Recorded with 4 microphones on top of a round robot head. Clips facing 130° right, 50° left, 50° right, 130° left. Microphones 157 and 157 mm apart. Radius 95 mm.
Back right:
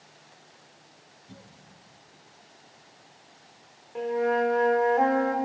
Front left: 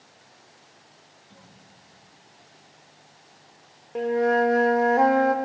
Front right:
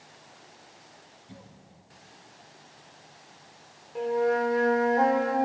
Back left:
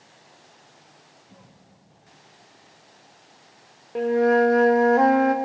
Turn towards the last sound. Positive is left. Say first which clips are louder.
# front left 4 dB, back left 7 dB
turn(degrees=100)